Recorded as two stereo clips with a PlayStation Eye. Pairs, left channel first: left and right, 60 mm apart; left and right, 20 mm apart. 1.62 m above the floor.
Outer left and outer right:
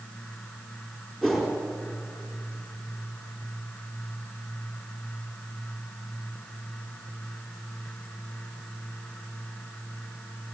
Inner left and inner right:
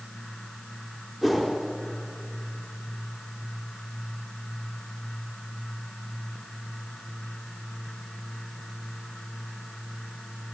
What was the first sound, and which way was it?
A whoosh, 5° left (ahead or behind).